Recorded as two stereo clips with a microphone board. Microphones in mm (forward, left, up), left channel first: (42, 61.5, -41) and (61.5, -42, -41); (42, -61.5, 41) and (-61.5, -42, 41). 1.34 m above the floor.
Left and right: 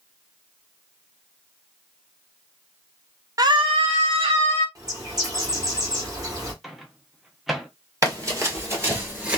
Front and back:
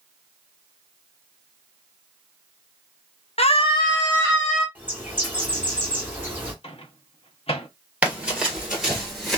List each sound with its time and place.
3.4 s a scream: 20° right, 0.6 m; by 4.7 s 90° right, 1.3 m
4.8 s a bird: 120° right, 1.1 m
6.6 s a microwave: 10° left, 0.6 m
8.0 s running footsteps: 120° right, 1.7 m; by 9.4 s 90° right, 1.3 m